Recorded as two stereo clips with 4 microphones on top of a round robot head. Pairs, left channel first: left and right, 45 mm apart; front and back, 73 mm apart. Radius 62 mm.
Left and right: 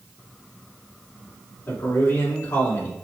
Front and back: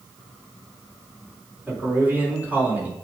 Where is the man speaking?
115° left, 4 m.